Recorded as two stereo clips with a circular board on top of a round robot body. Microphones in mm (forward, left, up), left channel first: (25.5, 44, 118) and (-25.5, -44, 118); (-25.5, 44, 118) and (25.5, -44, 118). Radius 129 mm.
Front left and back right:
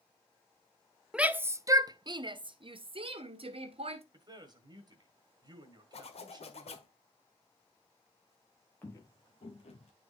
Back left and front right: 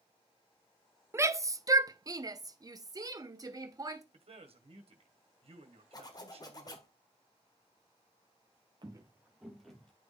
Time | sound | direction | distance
1.1 | a shout | 50° right | 0.7 m
4.1 | a man speaking | 75° right | 1.6 m
5.9 | a zipper | 70° left | 1.7 m
8.8 | footsteps | 10° right | 0.9 m